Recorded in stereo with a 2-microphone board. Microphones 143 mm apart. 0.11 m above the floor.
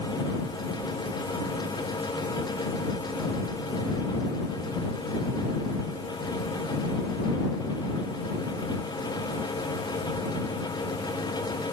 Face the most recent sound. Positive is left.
No sound to turn to.